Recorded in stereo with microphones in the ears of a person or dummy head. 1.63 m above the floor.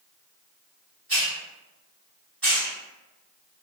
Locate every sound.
1.1 s a hiss: 5° left (ahead or behind), 1.6 m